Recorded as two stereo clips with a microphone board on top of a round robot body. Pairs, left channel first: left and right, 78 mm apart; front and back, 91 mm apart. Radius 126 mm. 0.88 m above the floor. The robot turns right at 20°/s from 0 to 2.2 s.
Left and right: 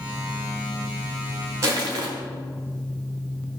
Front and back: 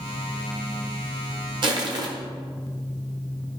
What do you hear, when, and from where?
1.6 s crushing: 145° right, 1.2 m; by 2.1 s 135° right, 1.2 m